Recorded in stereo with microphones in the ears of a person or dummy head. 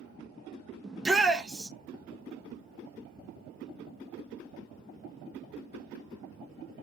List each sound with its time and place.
0.8 s a shout: centre (ahead or behind), 0.6 m